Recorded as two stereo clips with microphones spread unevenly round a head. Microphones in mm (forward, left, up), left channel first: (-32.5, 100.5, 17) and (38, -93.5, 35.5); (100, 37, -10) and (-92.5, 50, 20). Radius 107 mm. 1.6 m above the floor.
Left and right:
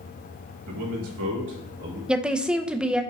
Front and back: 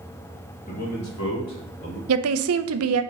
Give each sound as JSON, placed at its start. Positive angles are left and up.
{"t": 0.7, "sound": "a man speaking", "azimuth_deg": -65, "distance_m": 2.0}
{"t": 2.1, "sound": "a woman speaking", "azimuth_deg": -155, "distance_m": 0.6}